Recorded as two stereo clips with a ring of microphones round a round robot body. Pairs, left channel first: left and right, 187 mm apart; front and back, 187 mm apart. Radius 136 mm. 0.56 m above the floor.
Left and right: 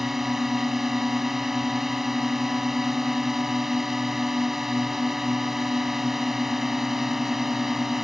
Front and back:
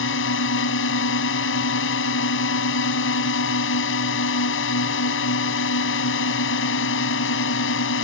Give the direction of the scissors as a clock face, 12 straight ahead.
No scissors in this recording.